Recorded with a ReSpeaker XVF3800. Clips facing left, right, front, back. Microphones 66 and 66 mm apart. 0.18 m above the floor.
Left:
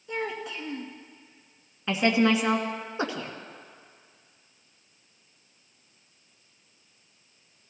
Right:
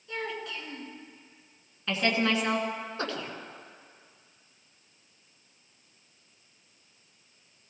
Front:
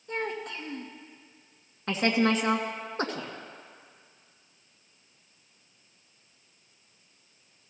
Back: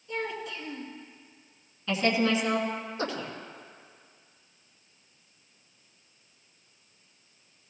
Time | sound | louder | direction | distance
0.1 | a child speaking | left 3 dB, front 1 dB | 20° left | 2.0 m
1.9 | a woman speaking | left 4 dB, front 1 dB | 20° left | 2 m